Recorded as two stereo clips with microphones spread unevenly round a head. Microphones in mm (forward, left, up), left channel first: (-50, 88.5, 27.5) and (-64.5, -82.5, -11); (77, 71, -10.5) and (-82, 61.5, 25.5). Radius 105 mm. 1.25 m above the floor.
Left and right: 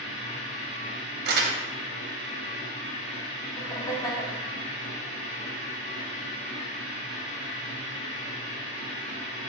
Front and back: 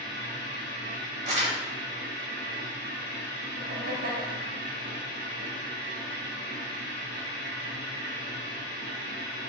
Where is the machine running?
25° left, 1.7 m.